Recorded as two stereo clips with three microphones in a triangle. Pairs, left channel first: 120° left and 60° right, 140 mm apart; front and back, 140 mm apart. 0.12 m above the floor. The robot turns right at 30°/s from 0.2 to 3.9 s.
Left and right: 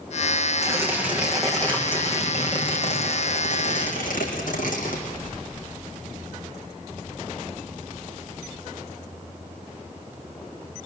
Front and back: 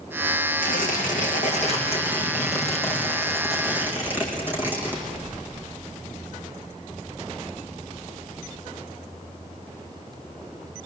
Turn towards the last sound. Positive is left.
turn(degrees=105)